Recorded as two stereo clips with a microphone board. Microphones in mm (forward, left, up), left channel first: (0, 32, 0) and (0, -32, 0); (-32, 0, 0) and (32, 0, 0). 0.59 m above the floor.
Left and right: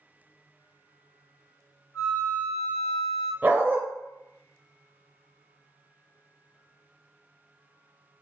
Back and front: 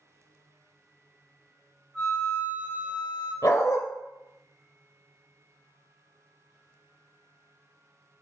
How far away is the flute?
About 1.5 m.